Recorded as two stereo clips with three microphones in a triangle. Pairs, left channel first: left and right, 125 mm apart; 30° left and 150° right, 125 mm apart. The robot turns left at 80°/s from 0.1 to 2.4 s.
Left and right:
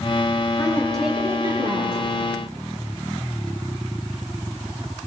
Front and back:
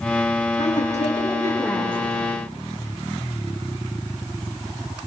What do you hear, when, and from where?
0.6 s a woman speaking: 35° left, 8.5 m; by 2.0 s 80° right, 8.5 m